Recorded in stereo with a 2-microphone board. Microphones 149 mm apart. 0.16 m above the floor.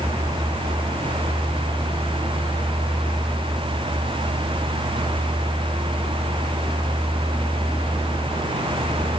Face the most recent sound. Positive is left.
No sound to turn to.